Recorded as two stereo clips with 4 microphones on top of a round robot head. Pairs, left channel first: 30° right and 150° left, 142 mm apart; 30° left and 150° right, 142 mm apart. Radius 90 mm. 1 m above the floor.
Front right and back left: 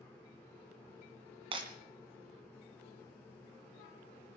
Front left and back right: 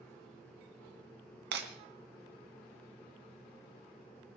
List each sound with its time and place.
1.5 s breaking glass: 155° right, 2.5 m